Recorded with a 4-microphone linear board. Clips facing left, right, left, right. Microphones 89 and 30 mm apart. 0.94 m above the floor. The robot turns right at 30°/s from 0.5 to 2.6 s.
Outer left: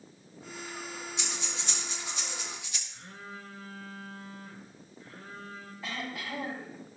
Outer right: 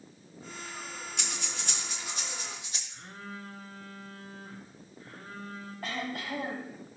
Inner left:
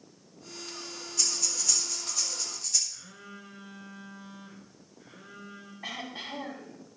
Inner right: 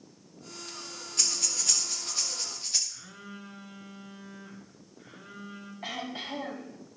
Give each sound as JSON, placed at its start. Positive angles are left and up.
{"t": 1.2, "sound": "breathing", "side_deg": -65, "distance_m": 1.5}
{"t": 2.9, "sound": "a phone buzzing", "side_deg": -65, "distance_m": 2.5}
{"t": 5.8, "sound": "throat clearing", "side_deg": -65, "distance_m": 5.0}